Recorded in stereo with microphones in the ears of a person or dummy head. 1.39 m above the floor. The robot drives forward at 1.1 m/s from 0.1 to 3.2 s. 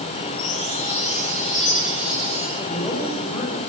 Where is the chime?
30° left (ahead or behind), 7.5 m; by 2.5 s 25° left (ahead or behind), 9.5 m.